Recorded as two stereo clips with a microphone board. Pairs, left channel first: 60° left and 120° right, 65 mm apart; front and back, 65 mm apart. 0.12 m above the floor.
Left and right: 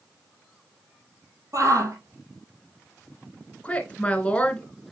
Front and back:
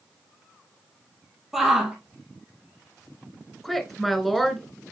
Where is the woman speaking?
85° left, 1.2 m.